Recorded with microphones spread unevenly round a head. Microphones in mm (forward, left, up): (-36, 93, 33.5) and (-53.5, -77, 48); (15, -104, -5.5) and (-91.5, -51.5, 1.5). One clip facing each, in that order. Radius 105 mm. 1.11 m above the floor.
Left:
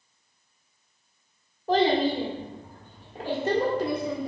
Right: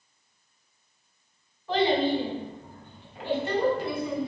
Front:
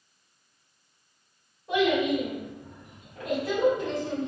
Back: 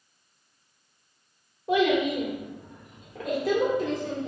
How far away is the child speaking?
About 1.6 m.